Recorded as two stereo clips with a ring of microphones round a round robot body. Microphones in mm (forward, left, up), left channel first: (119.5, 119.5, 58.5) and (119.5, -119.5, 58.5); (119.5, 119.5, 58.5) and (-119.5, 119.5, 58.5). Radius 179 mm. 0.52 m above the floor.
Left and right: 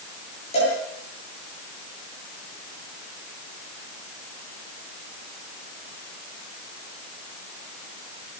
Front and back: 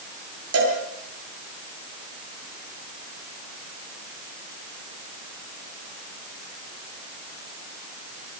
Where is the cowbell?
160° left, 7.5 m.